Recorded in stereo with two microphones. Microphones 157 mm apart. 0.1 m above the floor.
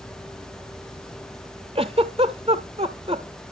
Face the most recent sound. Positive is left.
turn(degrees=-40)  # may be behind; listen again after turning